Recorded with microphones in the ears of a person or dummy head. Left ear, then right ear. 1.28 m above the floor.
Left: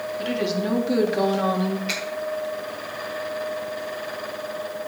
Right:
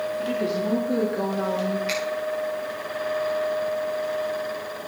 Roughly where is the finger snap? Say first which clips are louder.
Left 1 dB; centre.